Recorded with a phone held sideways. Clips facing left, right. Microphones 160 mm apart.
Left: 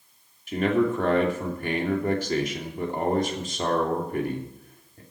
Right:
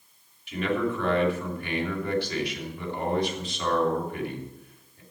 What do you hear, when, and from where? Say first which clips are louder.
0.5 s a man speaking: left 4 dB; 45° left (ahead or behind), 2.5 m